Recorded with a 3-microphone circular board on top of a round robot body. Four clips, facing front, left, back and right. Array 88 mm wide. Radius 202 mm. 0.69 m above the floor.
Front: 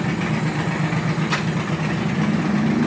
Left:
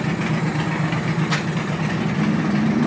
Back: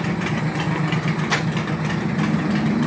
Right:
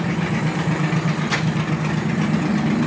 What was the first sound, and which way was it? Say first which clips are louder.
Crumpling: right 1 dB, back 1 dB; straight behind.